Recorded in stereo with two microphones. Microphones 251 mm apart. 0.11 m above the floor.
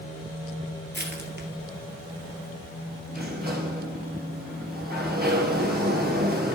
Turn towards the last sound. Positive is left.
turn(degrees=-40)  # may be behind; listen again after turning